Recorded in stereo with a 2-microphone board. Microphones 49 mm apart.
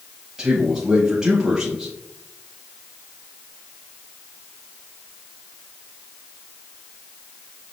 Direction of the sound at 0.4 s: 10° right (ahead or behind).